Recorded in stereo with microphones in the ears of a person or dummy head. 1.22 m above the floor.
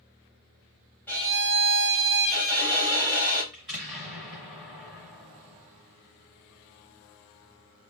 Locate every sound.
1.1 s a violin: 10° left (ahead or behind), 1.1 m
3.5 s an explosion: 5° right (ahead or behind), 1.6 m